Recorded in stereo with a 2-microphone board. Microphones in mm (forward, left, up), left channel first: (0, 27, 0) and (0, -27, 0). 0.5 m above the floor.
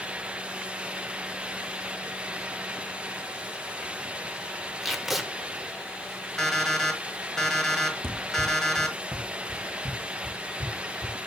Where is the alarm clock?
10° left (ahead or behind), 1.5 m.